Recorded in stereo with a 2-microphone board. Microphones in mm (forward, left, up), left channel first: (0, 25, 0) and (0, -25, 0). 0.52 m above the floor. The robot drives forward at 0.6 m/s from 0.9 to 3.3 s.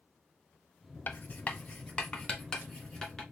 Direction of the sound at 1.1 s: 40° left (ahead or behind).